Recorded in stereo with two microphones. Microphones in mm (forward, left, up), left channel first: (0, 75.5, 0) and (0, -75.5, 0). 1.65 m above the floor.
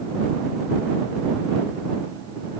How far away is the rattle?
I don't hear a rattle.